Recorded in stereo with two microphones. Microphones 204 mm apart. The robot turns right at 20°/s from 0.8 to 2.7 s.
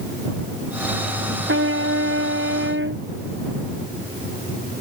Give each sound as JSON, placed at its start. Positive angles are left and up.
{"t": 1.5, "sound": "a trumpet", "side_deg": -80}